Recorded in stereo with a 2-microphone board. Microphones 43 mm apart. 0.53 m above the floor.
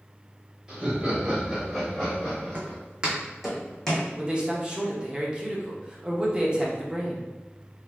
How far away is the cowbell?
No cowbell in this recording.